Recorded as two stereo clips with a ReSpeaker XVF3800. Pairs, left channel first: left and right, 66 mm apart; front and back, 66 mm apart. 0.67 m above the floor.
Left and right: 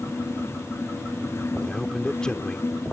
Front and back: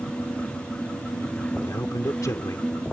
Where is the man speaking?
15° left.